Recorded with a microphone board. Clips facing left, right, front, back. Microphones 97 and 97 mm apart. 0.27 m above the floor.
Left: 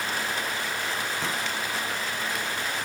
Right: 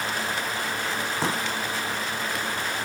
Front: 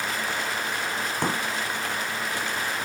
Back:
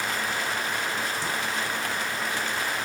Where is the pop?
35° right.